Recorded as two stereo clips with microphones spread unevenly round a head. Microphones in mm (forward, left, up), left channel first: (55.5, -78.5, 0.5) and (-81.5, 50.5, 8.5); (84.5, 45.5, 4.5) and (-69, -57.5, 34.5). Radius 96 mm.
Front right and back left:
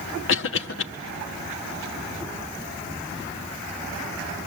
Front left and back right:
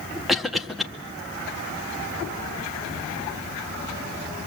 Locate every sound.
0.3 s a cough: 55° right, 1.7 m